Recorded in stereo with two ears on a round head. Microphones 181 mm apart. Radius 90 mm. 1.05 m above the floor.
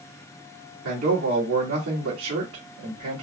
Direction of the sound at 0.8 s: 80° right.